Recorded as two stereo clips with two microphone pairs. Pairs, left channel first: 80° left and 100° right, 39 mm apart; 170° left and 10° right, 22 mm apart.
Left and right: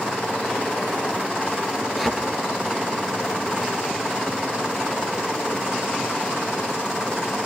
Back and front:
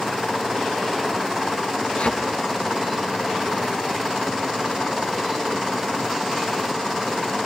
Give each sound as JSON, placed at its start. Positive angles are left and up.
{"t": 2.0, "sound": "a thud", "azimuth_deg": 170, "distance_m": 4.0}